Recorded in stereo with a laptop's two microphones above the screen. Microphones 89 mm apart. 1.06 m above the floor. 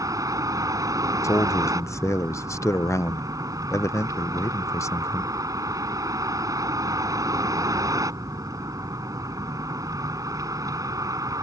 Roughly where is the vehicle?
Right.